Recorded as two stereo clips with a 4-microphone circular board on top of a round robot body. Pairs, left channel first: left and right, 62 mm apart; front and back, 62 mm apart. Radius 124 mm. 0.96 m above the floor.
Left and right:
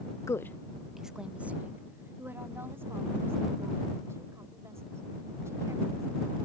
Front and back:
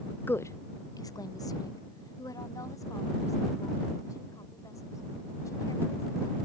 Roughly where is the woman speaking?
Ahead left.